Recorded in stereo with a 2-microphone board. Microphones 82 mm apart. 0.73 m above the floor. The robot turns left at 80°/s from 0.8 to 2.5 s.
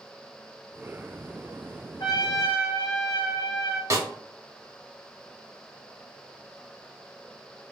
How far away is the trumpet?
About 0.7 m.